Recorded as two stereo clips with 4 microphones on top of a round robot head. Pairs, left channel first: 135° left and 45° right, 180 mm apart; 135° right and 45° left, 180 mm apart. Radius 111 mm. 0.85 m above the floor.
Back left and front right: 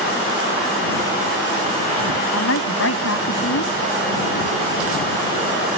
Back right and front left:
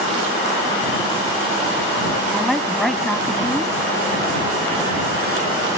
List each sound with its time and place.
2.3 s a woman speaking: 135° left